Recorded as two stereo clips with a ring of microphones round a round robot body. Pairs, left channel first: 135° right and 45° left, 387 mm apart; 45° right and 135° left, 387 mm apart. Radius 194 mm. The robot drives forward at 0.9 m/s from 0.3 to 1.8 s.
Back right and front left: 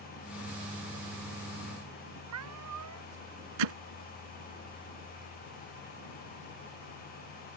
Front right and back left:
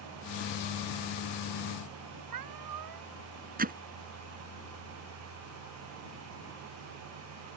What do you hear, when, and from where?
2.3 s a cat meowing: 95° left
3.6 s hammering: 65° left